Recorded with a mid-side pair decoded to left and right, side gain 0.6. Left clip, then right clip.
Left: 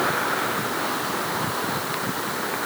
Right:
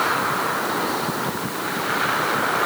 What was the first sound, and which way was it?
Only background noise.